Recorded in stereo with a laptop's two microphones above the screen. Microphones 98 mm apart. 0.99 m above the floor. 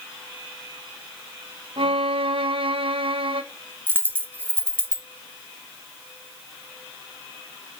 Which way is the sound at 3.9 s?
20° right (ahead or behind).